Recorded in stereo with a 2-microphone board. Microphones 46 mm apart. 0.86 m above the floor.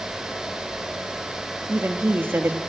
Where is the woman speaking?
50° right (ahead or behind), 1.2 m.